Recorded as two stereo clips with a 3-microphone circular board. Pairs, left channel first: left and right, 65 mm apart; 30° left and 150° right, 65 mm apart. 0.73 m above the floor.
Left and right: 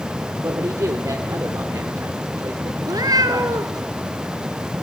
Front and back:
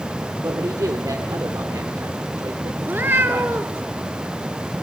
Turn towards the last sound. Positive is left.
turn(degrees=-95)